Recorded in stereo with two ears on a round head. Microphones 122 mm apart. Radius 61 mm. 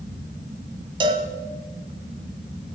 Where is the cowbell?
40° right (ahead or behind), 1.3 m.